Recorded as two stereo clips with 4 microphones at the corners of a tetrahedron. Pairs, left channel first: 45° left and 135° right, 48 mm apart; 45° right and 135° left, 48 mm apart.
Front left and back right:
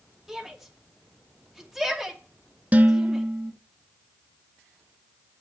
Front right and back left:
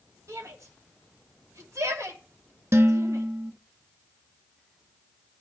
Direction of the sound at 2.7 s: 165° left.